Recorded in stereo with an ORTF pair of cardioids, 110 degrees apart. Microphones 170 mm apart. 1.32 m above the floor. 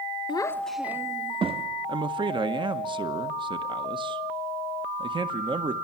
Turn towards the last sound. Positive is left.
turn(degrees=-30)